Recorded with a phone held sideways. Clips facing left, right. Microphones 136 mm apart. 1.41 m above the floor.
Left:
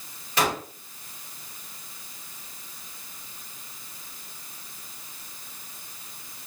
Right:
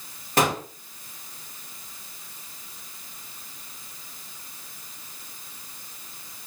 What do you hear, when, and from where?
0.4 s a gunshot: 45° right (ahead or behind), 1.8 m